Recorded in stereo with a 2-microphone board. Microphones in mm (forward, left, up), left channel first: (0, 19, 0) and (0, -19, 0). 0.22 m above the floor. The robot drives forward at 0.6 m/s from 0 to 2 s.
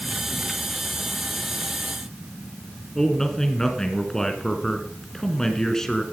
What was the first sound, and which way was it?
A man speaking, 15° left (ahead or behind).